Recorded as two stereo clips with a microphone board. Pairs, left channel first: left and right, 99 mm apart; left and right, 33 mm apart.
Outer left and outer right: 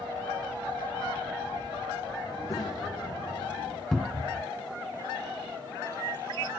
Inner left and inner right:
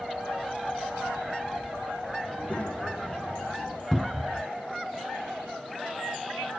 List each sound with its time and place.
2.3 s a child speaking: 35° left (ahead or behind), 5 m; by 3.8 s 45° left (ahead or behind), 5.5 m
3.9 s a cupboard door: 5° left (ahead or behind), 0.6 m